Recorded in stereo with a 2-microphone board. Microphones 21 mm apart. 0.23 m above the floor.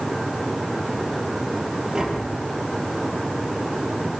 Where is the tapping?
30° right (ahead or behind), 3.5 m.